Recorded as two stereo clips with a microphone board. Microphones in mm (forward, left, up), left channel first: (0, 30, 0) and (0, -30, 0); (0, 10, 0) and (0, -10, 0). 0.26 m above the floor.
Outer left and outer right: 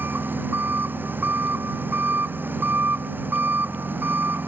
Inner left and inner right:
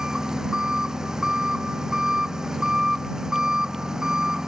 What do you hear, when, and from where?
0.0 s an engine running: 30° right (ahead or behind)